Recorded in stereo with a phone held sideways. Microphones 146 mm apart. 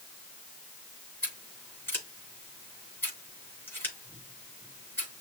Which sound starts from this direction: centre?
Scissors, at 1.2 s.